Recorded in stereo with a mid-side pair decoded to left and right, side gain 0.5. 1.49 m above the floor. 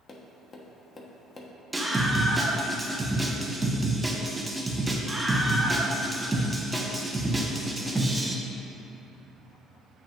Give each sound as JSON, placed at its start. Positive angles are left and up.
{"t": 0.1, "sound": "tapping", "azimuth_deg": 35, "distance_m": 1.1}
{"t": 1.7, "sound": "a scream", "azimuth_deg": -15, "distance_m": 1.1}